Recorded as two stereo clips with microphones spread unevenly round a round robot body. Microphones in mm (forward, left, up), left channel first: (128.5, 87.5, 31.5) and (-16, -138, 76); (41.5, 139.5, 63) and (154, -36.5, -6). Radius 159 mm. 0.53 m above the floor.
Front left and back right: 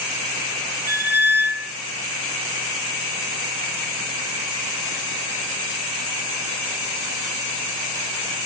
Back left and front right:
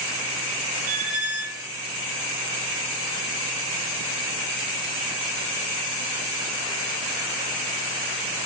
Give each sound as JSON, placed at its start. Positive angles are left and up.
{"t": 0.9, "sound": "a squeak", "azimuth_deg": -45, "distance_m": 1.5}